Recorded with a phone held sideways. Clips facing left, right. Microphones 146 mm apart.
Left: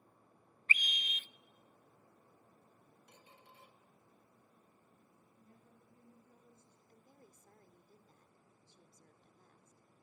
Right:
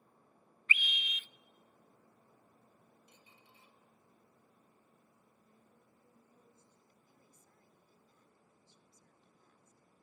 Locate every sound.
0.7 s a scream: 40° left (ahead or behind), 0.7 m
3.1 s a squeak: 60° left (ahead or behind), 2.0 m
5.4 s a woman speaking: 60° left (ahead or behind), 10 m
6.9 s a woman speaking: 50° left (ahead or behind), 2 m